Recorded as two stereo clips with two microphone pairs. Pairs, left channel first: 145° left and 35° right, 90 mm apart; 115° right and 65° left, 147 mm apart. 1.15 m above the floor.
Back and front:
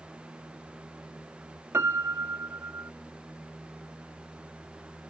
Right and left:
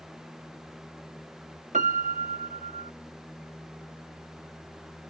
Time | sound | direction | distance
1.7 | a piano | 30° left | ?